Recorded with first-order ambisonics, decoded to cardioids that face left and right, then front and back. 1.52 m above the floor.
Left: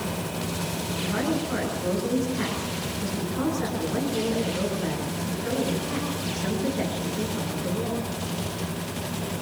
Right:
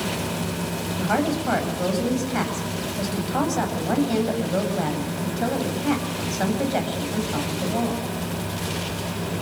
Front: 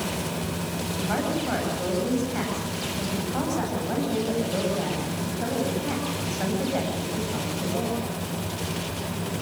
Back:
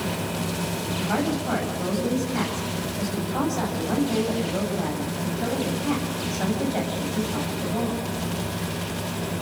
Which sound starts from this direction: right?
A woman speaking, at 1.0 s.